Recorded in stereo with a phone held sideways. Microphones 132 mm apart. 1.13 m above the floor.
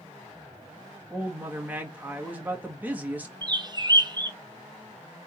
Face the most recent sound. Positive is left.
turn(degrees=-35)  # may be behind; listen again after turning